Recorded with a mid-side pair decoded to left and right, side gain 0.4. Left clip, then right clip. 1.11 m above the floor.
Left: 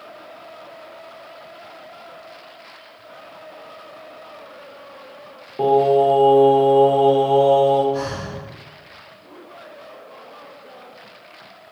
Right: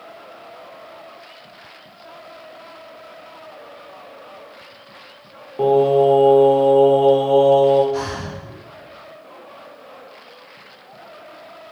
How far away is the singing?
About 2 m.